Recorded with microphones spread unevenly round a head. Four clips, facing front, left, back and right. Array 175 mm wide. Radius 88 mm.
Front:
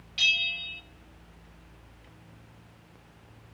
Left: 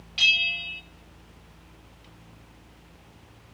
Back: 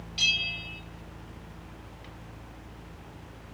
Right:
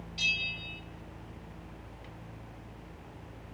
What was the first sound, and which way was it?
A bell, 95° left.